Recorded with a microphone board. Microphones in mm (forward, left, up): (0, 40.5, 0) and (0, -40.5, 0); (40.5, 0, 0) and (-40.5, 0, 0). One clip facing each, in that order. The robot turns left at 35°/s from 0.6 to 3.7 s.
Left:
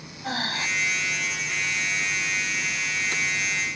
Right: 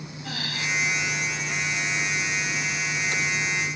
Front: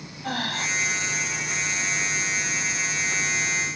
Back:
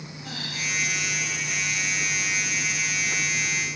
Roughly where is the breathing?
Ahead left.